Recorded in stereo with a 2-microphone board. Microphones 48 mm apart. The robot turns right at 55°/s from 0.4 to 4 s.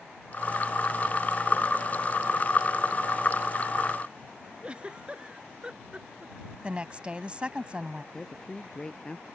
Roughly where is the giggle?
Right.